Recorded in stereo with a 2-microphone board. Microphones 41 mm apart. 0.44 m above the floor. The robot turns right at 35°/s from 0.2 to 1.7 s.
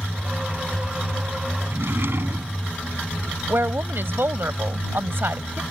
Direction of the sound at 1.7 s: 65° right (ahead or behind).